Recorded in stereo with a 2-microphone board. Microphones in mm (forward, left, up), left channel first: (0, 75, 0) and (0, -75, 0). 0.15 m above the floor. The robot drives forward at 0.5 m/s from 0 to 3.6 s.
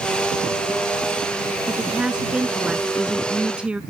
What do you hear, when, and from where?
1.7 s a woman speaking: 5° right (ahead or behind)